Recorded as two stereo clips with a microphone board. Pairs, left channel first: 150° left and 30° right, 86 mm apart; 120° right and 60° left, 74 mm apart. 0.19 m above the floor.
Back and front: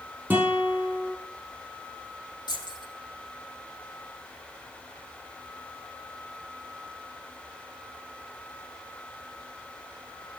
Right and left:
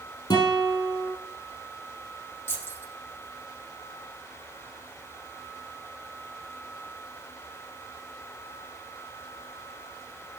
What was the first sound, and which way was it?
A guitar, 105° right.